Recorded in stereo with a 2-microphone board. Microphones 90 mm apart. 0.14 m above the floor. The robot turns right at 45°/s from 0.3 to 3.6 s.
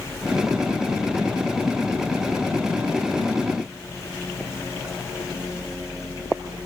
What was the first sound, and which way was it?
Only background noise.